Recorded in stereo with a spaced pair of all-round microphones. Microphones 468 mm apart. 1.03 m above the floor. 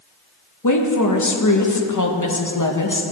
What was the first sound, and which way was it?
A woman speaking, 40° left (ahead or behind).